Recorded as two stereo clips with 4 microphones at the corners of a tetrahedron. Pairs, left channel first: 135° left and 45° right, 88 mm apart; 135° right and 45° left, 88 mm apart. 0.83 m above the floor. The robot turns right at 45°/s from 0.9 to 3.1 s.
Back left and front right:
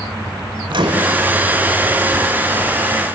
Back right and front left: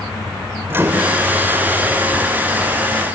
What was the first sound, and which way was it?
A microwave, 20° right.